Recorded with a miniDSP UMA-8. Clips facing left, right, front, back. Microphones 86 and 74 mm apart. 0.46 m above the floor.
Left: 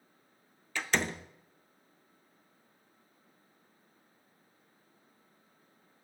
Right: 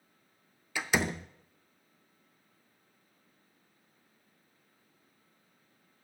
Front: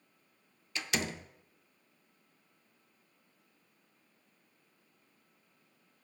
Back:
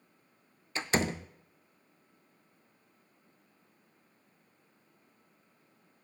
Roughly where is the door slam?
Behind.